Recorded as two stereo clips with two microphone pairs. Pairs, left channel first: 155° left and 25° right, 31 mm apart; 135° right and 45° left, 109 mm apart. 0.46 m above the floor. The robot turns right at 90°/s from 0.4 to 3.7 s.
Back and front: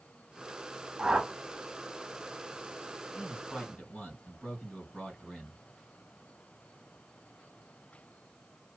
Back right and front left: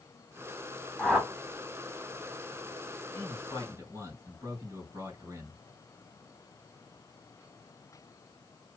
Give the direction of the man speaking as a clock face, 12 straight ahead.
10 o'clock.